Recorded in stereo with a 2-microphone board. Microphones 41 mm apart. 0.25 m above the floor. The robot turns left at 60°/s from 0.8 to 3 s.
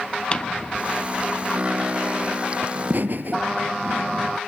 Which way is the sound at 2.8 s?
40° right (ahead or behind).